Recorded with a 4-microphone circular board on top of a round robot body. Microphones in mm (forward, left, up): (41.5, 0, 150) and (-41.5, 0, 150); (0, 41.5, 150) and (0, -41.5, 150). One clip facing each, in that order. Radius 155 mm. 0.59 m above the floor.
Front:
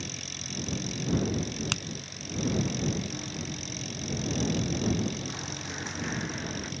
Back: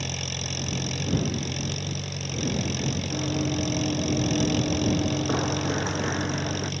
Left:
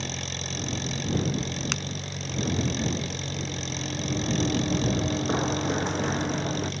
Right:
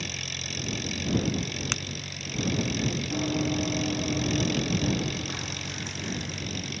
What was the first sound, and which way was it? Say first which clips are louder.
An engine running: back 7 dB, left 3 dB; 150° left.